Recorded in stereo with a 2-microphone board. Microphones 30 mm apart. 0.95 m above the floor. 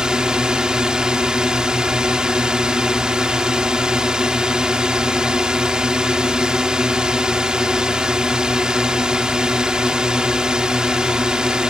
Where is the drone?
30° right (ahead or behind).